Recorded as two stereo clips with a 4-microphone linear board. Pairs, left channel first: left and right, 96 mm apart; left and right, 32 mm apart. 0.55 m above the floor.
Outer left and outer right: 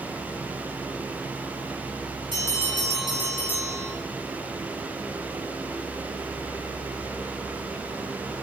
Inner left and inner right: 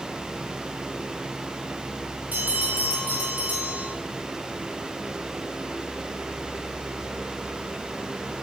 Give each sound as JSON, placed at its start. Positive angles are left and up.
{"t": 2.3, "sound": "a bell", "side_deg": -60, "distance_m": 2.5}